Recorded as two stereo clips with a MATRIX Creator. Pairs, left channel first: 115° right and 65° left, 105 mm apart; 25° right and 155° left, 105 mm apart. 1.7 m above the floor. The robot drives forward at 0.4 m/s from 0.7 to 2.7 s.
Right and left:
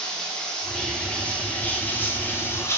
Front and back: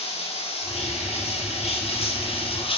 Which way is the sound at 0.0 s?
30° right.